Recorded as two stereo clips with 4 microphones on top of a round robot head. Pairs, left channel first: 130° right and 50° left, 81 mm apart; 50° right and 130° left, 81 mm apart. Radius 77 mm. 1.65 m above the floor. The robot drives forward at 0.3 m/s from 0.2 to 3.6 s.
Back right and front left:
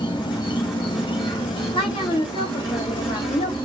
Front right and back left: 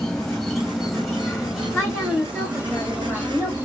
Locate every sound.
0.0 s an insect: 130° right, 1.1 m; by 3.6 s 155° right, 1.9 m
1.7 s a woman speaking: 130° right, 1.5 m; by 3.5 s 140° right, 1.9 m